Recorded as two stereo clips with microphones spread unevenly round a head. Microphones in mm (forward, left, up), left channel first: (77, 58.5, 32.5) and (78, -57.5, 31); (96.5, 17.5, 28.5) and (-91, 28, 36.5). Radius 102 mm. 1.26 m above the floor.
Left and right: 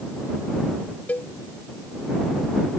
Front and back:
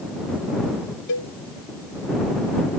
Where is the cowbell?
15° left.